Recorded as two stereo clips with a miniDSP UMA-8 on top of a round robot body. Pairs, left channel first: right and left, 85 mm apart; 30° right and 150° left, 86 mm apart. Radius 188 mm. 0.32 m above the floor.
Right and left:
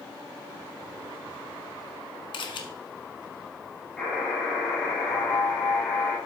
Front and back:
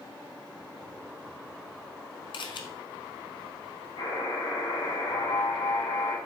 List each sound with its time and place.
2.3 s a camera shutter: 60° right, 0.8 m
4.0 s a buzzer: 10° right, 4 m